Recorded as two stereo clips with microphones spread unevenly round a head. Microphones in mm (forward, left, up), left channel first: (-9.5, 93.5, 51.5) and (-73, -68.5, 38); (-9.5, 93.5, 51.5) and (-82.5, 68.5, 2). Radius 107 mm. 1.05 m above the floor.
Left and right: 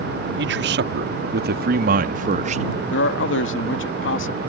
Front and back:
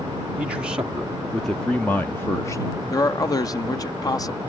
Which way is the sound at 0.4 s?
90° right.